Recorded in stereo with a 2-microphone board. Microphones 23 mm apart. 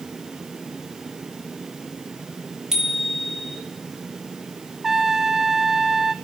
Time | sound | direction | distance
2.7 | a bicycle bell | 25° right (ahead or behind) | 4.5 m
4.8 | a trumpet | 15° right (ahead or behind) | 1.1 m